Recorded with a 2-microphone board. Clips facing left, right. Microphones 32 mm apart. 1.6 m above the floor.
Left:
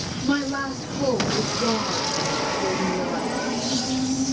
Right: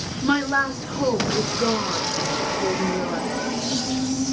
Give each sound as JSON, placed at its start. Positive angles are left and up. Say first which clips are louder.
{"t": 0.2, "sound": "a woman speaking", "louder": "right 4 dB", "side_deg": -70, "distance_m": 4.0}